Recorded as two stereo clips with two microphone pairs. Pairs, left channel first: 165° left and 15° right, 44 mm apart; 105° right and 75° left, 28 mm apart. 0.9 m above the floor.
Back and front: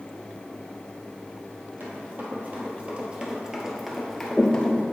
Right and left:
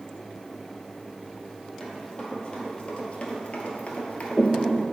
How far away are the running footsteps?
About 1.9 m.